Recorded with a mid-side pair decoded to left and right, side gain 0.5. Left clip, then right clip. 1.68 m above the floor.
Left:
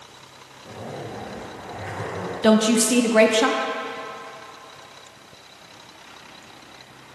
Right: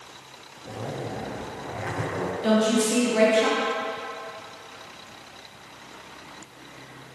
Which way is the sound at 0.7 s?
30° right.